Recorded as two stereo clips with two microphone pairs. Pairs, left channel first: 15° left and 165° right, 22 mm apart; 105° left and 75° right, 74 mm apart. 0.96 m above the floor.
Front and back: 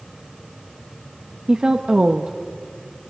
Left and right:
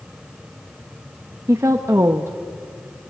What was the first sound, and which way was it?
A woman speaking, 125° right.